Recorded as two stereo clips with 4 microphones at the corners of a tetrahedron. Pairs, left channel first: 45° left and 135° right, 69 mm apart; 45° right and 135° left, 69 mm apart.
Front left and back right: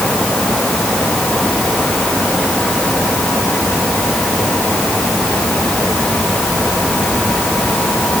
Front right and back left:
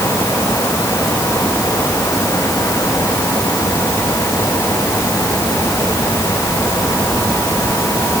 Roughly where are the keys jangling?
I don't hear keys jangling.